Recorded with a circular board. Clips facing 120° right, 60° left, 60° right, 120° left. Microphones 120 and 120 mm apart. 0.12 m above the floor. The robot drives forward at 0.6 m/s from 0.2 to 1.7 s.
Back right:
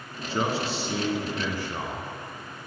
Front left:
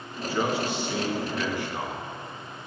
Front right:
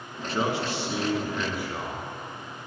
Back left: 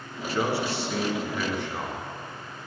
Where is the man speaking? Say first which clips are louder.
Front left 1 dB, back left 1 dB; 100° right, 1.5 m; by 2.1 s 140° right, 1.8 m.